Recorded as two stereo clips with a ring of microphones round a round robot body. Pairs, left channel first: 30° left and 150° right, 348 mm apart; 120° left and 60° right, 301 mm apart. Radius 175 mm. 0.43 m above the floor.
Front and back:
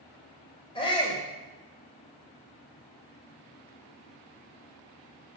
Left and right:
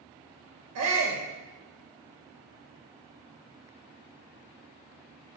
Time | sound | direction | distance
0.8 | a shout | 45° right | 2.5 m